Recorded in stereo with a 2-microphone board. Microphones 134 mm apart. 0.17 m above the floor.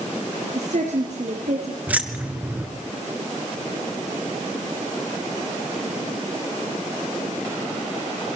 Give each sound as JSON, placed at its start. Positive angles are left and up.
{"t": 0.6, "sound": "a woman speaking", "side_deg": -60, "distance_m": 3.5}
{"t": 1.9, "sound": "keys jangling", "side_deg": -10, "distance_m": 1.8}